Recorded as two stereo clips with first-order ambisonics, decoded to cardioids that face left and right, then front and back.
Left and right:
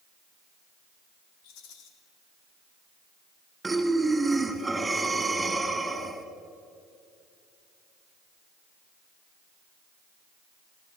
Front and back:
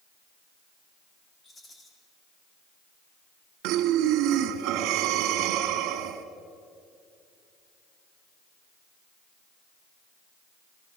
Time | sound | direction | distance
1.4 | a rattle | 75° left | 3.5 m
3.6 | breathing | 175° right | 1.8 m